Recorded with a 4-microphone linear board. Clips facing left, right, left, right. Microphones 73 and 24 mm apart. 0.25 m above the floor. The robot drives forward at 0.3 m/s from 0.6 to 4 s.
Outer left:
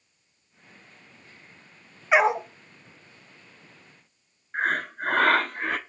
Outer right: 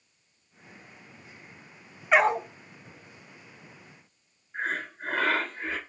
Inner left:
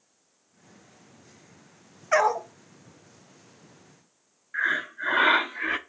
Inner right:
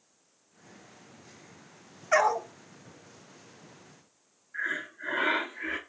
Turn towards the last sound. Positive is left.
turn(degrees=65)  # may be behind; listen again after turning